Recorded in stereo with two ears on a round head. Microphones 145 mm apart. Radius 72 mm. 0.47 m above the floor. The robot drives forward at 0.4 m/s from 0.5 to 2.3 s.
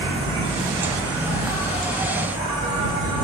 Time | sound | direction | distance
0.0 | an insect | 30° right (ahead or behind) | 1.5 m